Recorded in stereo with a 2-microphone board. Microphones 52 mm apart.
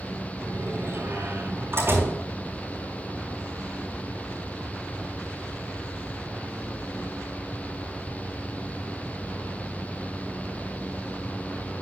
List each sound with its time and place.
0.4 s a door slam: 50° right (ahead or behind), 4.5 m